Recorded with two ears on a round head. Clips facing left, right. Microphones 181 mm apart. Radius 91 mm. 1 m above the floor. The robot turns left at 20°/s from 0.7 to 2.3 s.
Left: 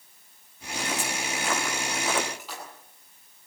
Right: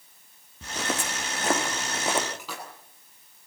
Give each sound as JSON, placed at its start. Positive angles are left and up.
{"t": 0.6, "sound": "footsteps", "side_deg": -60, "distance_m": 4.0}
{"t": 2.4, "sound": "a splash", "side_deg": -70, "distance_m": 9.0}